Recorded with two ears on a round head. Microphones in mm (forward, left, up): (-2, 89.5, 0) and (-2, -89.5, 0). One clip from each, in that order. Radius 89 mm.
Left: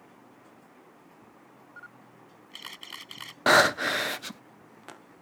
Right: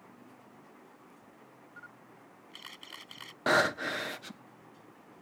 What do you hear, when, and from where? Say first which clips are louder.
1.8 s a camera shutter: left 3 dB; 20° left (ahead or behind)
3.5 s breathing: left 7 dB; 25° left (ahead or behind)